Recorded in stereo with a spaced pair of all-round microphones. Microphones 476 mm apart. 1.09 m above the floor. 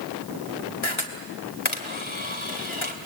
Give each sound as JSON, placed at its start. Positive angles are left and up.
{"t": 0.8, "sound": "a camera shutter", "side_deg": 80, "distance_m": 2.5}